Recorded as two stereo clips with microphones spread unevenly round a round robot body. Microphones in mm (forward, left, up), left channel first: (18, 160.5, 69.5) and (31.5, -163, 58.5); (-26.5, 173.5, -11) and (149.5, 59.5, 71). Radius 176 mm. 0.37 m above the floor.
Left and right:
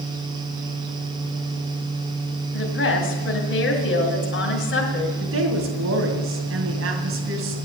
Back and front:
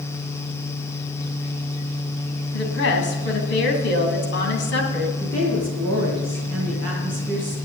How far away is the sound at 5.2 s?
About 2.5 m.